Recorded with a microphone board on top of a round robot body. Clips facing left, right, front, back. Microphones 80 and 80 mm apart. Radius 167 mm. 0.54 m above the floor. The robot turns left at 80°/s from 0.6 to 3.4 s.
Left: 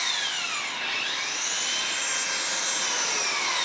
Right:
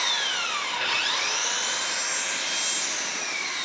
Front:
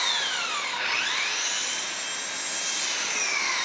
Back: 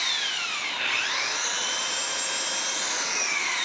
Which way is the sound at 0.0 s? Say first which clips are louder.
Right 3 dB, front 3 dB; 55° right.